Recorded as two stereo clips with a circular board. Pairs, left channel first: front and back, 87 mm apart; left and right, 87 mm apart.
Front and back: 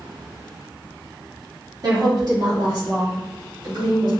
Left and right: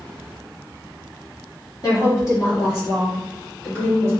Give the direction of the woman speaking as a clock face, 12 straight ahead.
7 o'clock.